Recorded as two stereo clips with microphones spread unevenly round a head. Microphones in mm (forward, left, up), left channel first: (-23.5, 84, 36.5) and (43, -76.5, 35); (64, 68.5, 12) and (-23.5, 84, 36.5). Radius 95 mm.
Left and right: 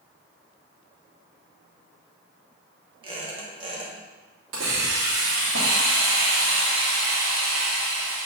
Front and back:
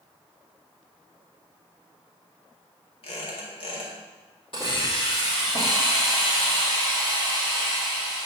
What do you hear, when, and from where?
3.0 s a squeak: 10° right, 1.7 m
4.5 s a hiss: 75° right, 2.5 m